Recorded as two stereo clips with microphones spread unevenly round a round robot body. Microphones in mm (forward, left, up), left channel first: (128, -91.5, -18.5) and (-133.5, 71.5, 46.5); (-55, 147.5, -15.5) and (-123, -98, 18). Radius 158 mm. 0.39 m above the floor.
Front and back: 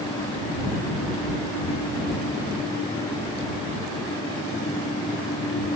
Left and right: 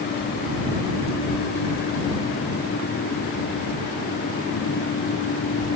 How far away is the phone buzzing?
No phone buzzing in this recording.